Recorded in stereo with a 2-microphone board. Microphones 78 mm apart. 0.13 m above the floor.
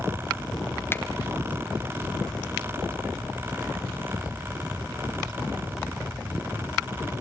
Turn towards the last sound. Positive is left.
turn(degrees=30)  # may be behind; listen again after turning